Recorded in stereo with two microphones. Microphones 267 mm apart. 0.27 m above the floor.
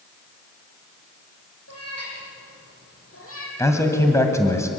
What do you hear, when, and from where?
1.7 s a cat meowing: 70° left (ahead or behind), 6 m; by 3.5 s 55° left (ahead or behind), 4.5 m
3.6 s a man speaking: 10° left (ahead or behind), 2 m